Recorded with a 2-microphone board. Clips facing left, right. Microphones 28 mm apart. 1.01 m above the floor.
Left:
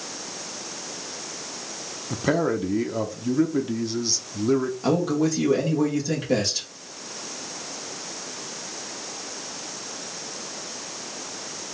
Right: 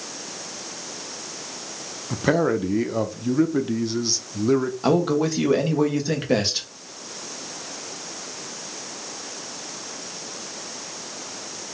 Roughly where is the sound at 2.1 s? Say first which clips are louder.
Right 2 dB; centre.